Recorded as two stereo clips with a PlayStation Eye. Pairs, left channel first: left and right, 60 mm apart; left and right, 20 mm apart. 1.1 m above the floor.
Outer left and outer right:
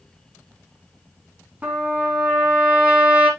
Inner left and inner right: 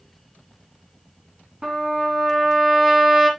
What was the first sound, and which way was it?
A trumpet, 20° right (ahead or behind).